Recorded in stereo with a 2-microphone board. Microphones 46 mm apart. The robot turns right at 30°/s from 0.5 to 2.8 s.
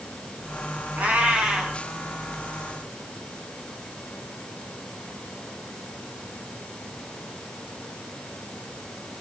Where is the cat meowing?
35° right (ahead or behind), 2 m; by 1.8 s 10° right (ahead or behind), 2 m.